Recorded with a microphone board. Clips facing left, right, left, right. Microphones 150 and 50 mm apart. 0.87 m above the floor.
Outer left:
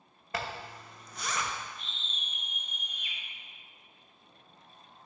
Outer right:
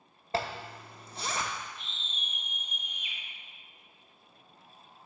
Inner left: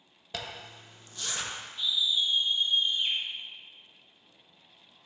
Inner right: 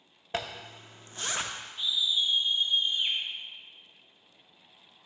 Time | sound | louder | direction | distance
0.3 | a zipper | outer right 4 dB, inner right 4 dB | 30° right (ahead or behind) | 0.6 m
1.8 | a scream | even, even | 20° right (ahead or behind) | 0.8 m